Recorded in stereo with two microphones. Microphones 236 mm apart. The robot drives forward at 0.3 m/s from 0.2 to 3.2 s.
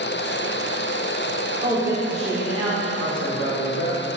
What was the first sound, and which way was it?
A woman speaking, 25° right (ahead or behind).